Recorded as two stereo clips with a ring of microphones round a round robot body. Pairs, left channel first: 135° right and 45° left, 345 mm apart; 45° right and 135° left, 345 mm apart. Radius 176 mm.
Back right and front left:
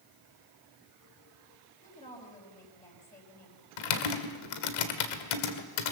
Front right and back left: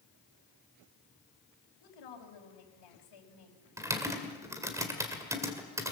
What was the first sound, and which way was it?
A woman speaking, 65° right.